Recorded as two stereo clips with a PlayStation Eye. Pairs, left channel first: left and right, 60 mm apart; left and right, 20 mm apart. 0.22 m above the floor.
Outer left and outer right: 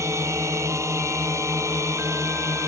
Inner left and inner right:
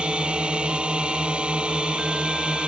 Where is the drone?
55° right (ahead or behind).